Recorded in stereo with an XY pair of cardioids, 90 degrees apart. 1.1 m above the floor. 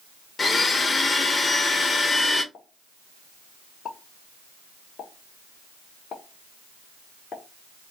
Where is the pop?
60° left, 1.2 m.